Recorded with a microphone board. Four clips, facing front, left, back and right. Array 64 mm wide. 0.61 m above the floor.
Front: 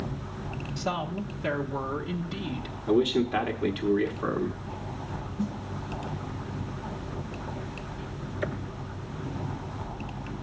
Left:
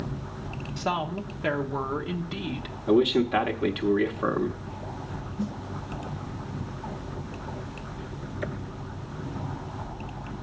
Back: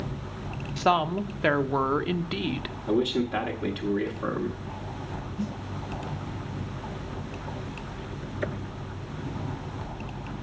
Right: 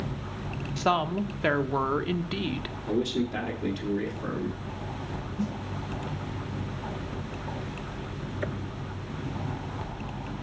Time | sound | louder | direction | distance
0.8 | a woman speaking | right 3 dB, back 8 dB | 160° right | 0.8 m
2.9 | a man speaking | left 7 dB, front 2 dB | 90° left | 1.0 m
5.4 | a snare drum | even, front 1 dB | 170° right | 6 m